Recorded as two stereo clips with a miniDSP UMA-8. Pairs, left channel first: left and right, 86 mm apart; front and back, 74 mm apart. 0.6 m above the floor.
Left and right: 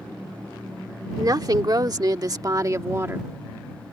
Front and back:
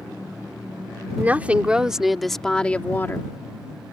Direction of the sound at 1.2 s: 120° right.